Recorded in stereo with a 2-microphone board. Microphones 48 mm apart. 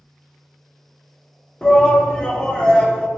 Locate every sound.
1.6 s a shout: 20° left (ahead or behind), 0.6 m